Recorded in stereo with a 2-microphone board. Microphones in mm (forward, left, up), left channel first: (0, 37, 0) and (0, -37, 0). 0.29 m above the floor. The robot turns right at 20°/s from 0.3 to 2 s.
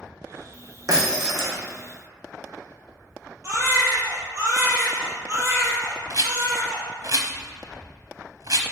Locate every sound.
0.9 s breaking glass: 50° right (ahead or behind), 2.5 m; by 1.6 s 35° right (ahead or behind), 2.5 m
3.4 s a baby crying: 35° right (ahead or behind), 2.5 m
6.1 s a rattle: 55° right (ahead or behind), 0.9 m